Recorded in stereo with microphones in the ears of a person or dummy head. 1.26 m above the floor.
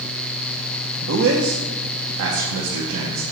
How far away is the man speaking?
About 0.8 m.